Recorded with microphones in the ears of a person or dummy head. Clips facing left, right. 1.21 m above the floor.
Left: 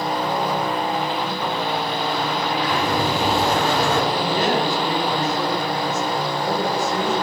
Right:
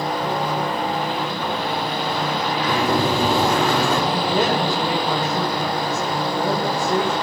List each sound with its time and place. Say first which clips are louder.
2.7 s a sliding door: right 4 dB; 80° right, 2.5 m
4.1 s a woman speaking: right 1 dB; 75° right (ahead or behind), 4 m